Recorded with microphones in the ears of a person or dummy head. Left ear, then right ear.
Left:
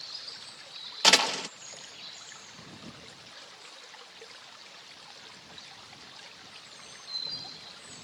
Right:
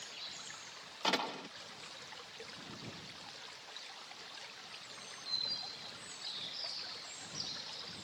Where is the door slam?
70° left (ahead or behind).